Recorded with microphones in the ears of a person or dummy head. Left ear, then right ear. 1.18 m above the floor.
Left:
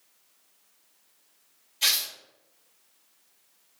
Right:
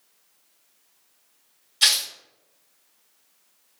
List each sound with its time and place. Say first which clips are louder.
1.8 s tearing paper: right 5 dB; 45° right (ahead or behind), 1.5 m